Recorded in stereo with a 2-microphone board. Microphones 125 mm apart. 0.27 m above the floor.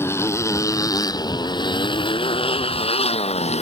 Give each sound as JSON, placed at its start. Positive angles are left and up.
{"t": 0.0, "sound": "a motorcycle", "side_deg": 20}